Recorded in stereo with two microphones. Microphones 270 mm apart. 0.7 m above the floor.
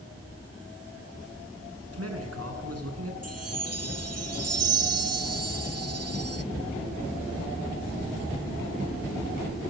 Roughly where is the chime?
Right.